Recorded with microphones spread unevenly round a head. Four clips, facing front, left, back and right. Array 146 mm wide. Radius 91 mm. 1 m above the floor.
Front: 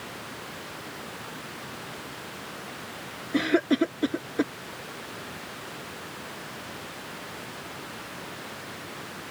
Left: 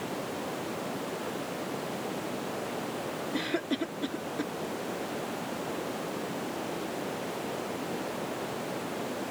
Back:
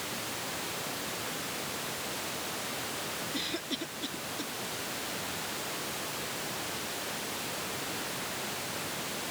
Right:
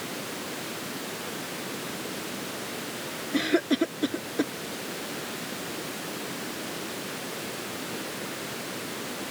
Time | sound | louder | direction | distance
3.3 | a cough | right 8 dB, front 19 dB | 40° right | ?